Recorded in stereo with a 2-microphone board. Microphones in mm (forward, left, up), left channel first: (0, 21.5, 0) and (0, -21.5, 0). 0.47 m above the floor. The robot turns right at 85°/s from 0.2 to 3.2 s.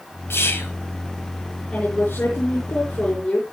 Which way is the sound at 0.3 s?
85° left.